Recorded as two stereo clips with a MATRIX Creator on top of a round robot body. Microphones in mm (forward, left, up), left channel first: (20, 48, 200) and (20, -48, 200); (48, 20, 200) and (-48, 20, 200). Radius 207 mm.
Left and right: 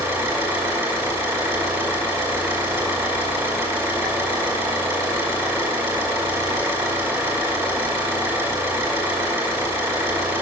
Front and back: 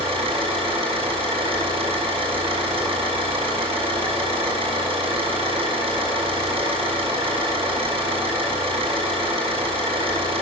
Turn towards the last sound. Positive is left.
turn(degrees=-155)